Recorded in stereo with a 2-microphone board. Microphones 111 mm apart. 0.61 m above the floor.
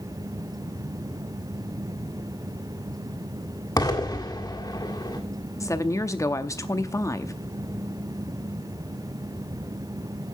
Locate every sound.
3.8 s an explosion: 35° left (ahead or behind), 1.8 m
5.6 s a woman speaking: 30° left (ahead or behind), 0.7 m